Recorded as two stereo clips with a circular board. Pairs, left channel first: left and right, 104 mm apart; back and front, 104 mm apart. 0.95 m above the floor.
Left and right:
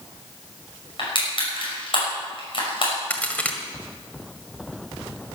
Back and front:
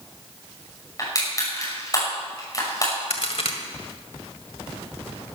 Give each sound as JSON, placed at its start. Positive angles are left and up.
{"t": 1.0, "sound": "crushing", "azimuth_deg": 125, "distance_m": 6.0}
{"t": 3.1, "sound": "a crack", "azimuth_deg": 165, "distance_m": 1.8}